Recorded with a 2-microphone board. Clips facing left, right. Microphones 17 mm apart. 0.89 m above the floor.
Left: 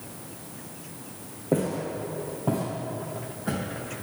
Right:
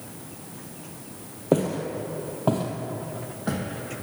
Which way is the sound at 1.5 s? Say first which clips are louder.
Right 3 dB; 50° right (ahead or behind).